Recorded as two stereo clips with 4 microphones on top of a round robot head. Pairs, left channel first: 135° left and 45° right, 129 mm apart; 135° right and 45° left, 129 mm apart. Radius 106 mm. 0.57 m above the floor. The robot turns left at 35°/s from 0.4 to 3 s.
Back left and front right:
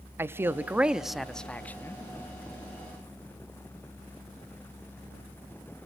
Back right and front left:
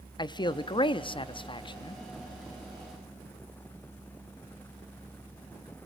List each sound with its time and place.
0.2 s a man speaking: 105° right, 0.8 m; by 2.0 s 165° right, 0.8 m